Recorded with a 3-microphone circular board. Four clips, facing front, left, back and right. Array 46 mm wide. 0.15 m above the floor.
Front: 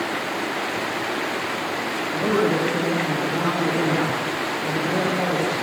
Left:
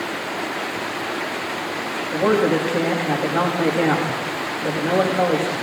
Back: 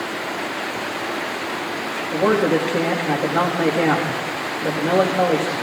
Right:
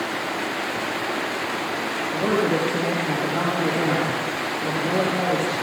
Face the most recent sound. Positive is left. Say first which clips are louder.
# left 4 dB, back 4 dB
turn(degrees=155)